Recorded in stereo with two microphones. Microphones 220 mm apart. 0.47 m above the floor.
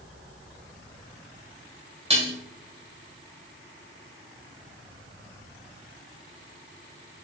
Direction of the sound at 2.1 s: 25° right (ahead or behind).